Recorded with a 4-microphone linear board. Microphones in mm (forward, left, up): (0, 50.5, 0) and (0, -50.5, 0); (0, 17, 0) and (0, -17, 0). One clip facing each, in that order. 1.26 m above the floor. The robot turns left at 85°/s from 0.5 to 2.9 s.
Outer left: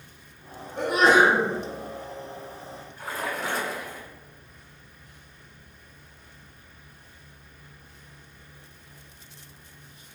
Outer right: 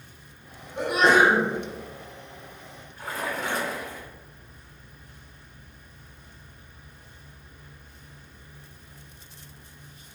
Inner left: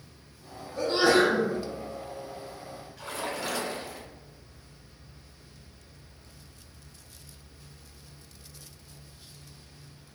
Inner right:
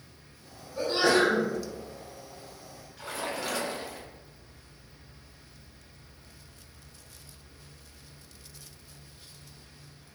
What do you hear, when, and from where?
0.8 s a sneeze: 160° right, 1.1 m; by 1.5 s 140° left, 1.1 m
3.0 s a splash: centre (ahead or behind), 0.5 m